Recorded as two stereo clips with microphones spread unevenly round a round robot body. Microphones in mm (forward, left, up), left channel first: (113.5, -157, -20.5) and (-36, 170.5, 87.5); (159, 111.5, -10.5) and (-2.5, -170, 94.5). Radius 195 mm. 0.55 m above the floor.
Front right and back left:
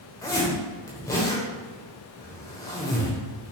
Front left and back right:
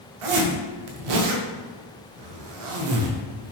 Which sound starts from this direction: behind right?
A zipper, at 0.2 s.